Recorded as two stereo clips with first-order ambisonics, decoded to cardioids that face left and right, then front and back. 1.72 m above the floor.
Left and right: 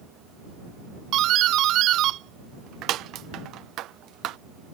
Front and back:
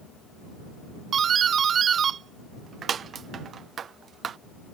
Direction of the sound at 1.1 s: 120° right.